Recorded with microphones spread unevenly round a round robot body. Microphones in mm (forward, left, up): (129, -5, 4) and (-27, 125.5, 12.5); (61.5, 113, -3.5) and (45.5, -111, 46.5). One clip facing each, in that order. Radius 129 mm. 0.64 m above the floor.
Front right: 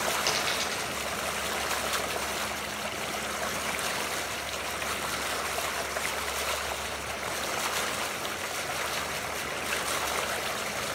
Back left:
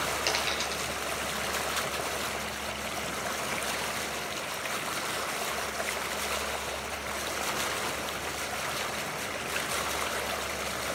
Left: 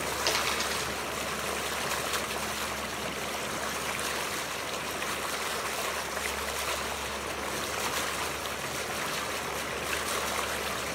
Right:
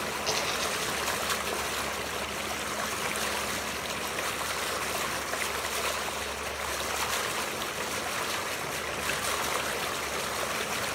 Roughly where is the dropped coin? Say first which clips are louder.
Even, even; left.